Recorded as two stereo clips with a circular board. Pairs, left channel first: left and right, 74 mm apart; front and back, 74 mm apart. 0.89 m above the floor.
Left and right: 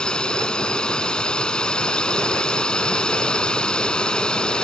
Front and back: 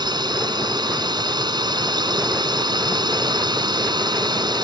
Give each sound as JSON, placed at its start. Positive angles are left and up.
{"t": 0.0, "sound": "a drone", "azimuth_deg": 165}